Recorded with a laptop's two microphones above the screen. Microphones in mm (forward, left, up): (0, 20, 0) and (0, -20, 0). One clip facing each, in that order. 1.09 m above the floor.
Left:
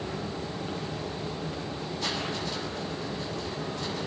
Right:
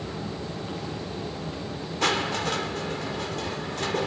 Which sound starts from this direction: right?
Crushing, at 2.0 s.